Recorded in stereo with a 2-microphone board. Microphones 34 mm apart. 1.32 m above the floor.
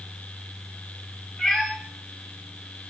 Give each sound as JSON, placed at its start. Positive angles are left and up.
{"t": 1.4, "sound": "a cat meowing", "side_deg": 10, "distance_m": 3.0}